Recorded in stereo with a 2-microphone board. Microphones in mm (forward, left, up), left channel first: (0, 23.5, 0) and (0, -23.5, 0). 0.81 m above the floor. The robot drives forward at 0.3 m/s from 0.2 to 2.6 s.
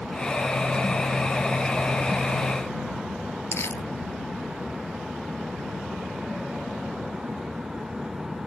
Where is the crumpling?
65° left (ahead or behind).